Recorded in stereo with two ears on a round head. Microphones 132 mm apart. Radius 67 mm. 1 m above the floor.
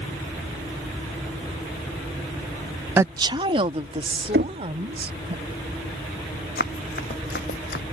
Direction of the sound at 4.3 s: 75° right (ahead or behind).